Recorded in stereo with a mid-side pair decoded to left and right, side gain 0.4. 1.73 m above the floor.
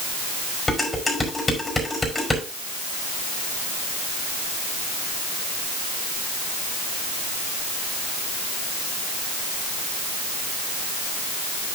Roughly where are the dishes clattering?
Ahead.